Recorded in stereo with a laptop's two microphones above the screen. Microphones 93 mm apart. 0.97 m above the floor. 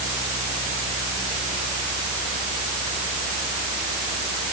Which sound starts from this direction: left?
A fan, at 0.0 s.